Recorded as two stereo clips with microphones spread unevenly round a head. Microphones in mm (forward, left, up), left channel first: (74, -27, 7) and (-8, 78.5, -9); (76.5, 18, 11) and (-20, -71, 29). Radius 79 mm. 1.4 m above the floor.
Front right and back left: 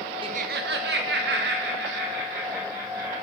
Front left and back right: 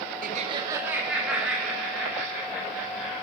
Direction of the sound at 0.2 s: 170° right.